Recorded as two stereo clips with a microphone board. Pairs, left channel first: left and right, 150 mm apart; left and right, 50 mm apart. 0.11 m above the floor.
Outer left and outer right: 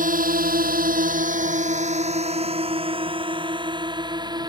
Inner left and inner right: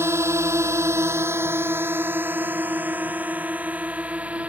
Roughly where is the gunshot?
No gunshot in this recording.